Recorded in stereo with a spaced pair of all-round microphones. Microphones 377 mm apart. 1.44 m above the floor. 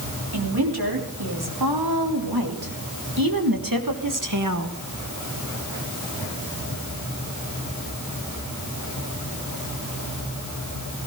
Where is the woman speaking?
80° right, 3.5 m; by 4.8 s 45° right (ahead or behind), 1.2 m.